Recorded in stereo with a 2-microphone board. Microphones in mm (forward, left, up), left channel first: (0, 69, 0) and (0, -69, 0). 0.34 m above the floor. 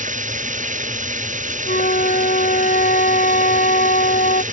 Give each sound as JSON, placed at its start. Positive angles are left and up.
{"t": 0.0, "sound": "running water", "side_deg": -65}
{"t": 1.7, "sound": "a flute", "side_deg": 80}